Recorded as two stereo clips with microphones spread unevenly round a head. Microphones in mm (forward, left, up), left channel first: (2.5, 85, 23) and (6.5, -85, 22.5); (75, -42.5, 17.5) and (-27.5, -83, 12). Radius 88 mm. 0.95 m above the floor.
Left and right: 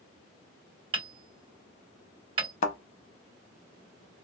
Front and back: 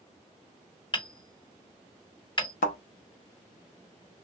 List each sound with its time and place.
0.9 s hammering: 25° right, 1.3 m
2.6 s a thud: 45° left, 0.6 m